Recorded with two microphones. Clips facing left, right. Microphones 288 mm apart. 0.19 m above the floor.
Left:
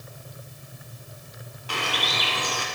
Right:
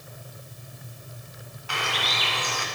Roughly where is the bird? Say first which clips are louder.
Left 2 dB; left.